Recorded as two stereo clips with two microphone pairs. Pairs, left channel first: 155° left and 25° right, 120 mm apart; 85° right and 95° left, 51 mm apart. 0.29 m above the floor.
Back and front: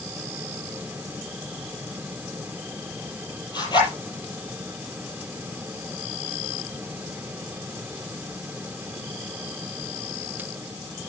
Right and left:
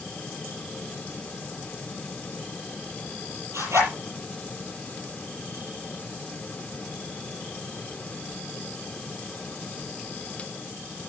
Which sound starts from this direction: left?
A zipper, at 3.5 s.